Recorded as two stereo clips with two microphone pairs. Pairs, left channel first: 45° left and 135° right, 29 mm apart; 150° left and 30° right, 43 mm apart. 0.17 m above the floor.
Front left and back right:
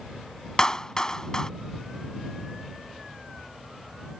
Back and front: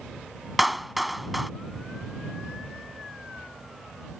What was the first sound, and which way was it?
A clap, 50° left.